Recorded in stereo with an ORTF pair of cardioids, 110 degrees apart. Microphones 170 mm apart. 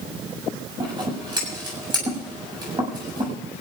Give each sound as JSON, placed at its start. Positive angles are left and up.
{"t": 0.8, "sound": "scissors", "azimuth_deg": -25, "distance_m": 7.0}